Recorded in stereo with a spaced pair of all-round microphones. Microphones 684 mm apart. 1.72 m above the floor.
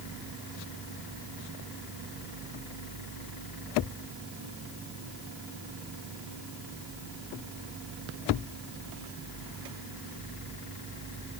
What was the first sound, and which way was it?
Only background noise.